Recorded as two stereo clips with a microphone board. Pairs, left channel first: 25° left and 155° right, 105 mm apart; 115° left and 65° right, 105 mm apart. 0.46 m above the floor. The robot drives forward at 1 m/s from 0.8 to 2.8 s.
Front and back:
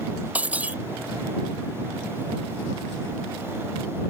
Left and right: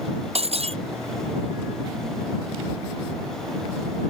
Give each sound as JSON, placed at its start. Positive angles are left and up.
{"t": 0.3, "sound": "breaking glass", "azimuth_deg": -80}